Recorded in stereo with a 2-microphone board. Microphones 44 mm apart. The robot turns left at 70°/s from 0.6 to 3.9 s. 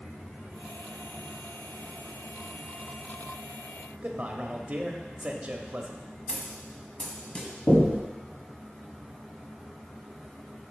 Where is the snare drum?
25° left (ahead or behind), 1.4 m.